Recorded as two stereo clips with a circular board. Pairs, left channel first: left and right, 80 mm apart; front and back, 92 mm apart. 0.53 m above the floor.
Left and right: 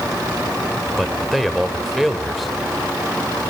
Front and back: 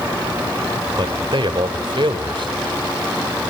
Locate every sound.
1.0 s a man speaking: straight behind, 2 m